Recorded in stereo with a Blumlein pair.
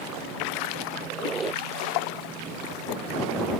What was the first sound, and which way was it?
A squeak, 15° right.